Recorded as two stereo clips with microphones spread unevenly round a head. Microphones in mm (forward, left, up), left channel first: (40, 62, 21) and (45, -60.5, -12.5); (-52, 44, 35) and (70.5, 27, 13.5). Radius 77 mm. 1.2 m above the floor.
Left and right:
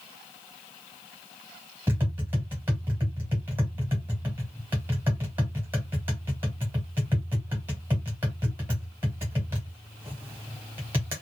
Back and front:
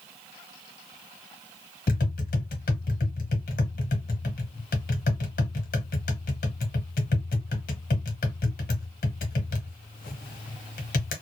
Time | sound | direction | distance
1.9 | tapping | 160° right | 0.7 m